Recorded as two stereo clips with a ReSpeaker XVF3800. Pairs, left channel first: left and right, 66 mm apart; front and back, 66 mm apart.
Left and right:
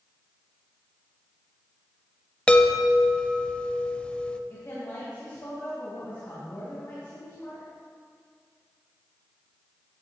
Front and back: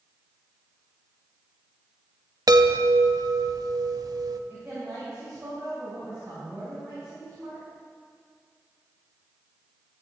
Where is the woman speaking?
120° left, 3.5 m.